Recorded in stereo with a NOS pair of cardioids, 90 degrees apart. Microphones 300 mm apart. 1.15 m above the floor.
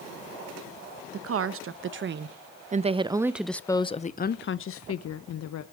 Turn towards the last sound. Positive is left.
turn(degrees=70)